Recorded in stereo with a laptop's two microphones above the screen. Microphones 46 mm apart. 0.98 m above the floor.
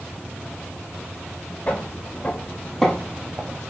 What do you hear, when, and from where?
1.7 s footsteps: 35° left (ahead or behind), 1.8 m; by 3.6 s 20° right (ahead or behind), 1.2 m